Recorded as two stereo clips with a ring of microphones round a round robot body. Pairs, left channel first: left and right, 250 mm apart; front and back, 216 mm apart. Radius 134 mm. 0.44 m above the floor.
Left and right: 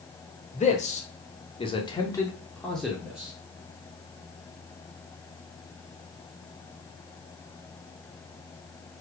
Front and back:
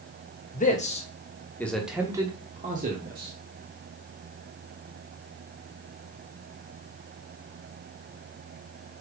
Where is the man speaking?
35° left, 1.4 m; by 3.3 s 175° right, 1.4 m.